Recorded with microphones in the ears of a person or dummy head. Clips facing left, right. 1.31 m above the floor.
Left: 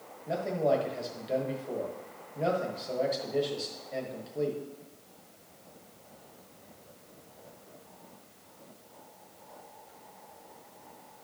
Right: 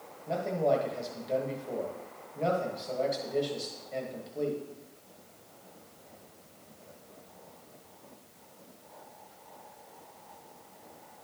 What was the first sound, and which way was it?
A man speaking, 5° left (ahead or behind).